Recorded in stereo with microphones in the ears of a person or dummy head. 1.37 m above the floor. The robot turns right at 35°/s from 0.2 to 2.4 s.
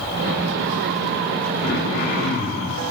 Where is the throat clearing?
45° left (ahead or behind), 1.1 m; by 2.8 s 35° left (ahead or behind), 1.1 m.